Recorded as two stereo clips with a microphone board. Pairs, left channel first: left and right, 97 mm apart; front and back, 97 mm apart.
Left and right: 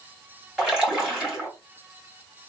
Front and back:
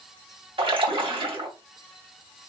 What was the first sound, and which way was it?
A splash, 175° right.